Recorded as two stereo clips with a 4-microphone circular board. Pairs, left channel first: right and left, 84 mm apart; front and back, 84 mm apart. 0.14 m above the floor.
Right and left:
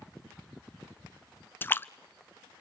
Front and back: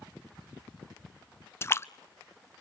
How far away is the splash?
About 0.6 m.